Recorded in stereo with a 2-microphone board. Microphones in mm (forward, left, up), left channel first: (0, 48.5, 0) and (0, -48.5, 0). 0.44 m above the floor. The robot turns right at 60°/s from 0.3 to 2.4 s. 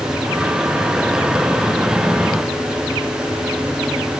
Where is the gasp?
I don't hear a gasp.